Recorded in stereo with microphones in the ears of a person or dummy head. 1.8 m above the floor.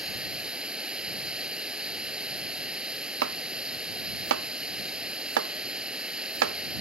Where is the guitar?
I don't hear a guitar.